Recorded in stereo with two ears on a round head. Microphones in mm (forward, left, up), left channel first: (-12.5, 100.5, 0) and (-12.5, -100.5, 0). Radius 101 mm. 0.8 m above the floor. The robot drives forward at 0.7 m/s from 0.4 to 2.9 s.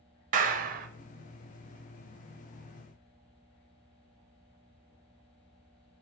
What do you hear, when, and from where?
0.3 s a clap: 35° right (ahead or behind), 0.9 m; by 0.9 s 40° right (ahead or behind), 0.9 m